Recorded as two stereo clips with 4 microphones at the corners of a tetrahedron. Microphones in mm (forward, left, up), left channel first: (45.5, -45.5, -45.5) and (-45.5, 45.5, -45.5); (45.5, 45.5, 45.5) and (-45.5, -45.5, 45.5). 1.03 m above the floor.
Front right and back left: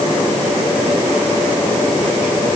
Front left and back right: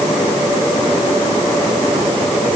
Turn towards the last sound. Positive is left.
No sound to turn to.